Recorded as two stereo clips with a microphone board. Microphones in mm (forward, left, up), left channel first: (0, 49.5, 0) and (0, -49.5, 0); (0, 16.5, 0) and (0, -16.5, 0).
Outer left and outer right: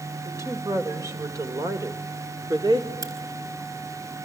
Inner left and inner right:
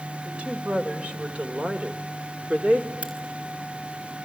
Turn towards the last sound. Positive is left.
turn(degrees=-40)  # may be behind; listen again after turning